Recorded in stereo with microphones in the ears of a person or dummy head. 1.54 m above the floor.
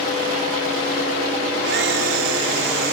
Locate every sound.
1.6 s a camera shutter: 70° right (ahead or behind), 2 m